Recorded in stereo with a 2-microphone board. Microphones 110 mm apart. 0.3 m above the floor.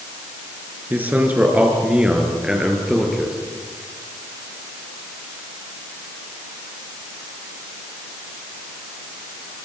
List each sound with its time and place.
0.9 s a man speaking: 15° right (ahead or behind), 5 m; by 3.4 s centre (ahead or behind), 6 m